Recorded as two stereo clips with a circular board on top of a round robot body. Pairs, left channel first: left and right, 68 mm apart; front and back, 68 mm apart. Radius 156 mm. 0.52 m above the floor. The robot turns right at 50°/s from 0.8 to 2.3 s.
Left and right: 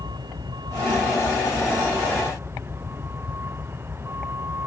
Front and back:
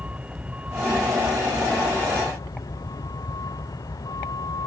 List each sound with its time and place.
0.0 s a vehicle: 110° right; by 4.7 s 35° right